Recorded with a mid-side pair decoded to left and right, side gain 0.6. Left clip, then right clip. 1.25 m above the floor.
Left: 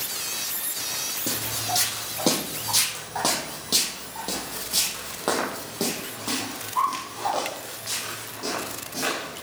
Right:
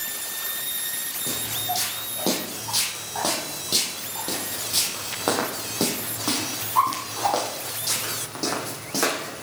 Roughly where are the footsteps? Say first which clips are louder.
Right 2 dB; ahead left.